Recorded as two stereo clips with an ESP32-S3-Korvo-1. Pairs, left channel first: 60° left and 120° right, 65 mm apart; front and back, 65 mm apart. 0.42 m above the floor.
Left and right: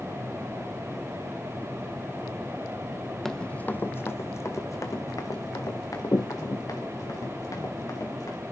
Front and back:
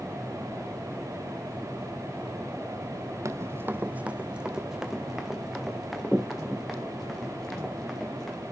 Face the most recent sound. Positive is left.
turn(degrees=85)